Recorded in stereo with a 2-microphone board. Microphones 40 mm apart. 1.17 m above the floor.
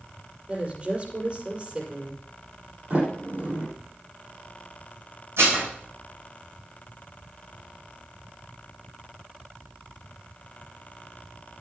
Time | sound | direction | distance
0.5 | a woman speaking | 30° right (ahead or behind) | 5.5 m
2.9 | a sliding door | 45° right (ahead or behind) | 6.5 m
5.4 | dishes clattering | 80° right | 3.5 m